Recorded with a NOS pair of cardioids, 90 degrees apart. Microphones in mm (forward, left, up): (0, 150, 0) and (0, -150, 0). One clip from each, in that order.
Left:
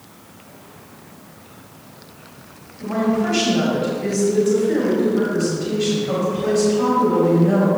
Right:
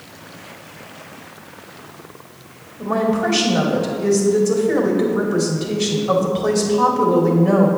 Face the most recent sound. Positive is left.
turn(degrees=-55)